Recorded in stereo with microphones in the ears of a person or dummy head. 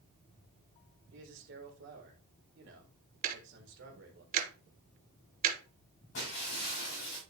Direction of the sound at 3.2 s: 45° right (ahead or behind).